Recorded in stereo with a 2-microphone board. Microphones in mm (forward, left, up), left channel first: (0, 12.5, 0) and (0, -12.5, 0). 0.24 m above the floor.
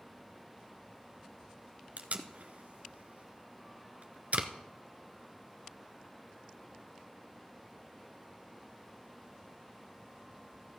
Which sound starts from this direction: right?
Tape being pulled, at 2.0 s.